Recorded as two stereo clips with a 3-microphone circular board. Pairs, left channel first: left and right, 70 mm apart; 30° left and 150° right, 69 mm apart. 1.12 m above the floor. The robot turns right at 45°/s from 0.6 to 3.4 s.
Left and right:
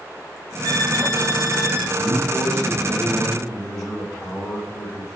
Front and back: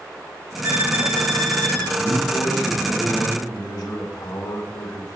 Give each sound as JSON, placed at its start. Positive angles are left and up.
{"t": 0.6, "sound": "a violin", "azimuth_deg": -100, "distance_m": 3.5}
{"t": 2.0, "sound": "a man speaking", "azimuth_deg": -55, "distance_m": 4.5}